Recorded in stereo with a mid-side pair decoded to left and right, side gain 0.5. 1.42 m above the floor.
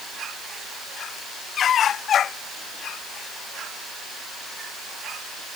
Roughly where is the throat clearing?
I don't hear throat clearing.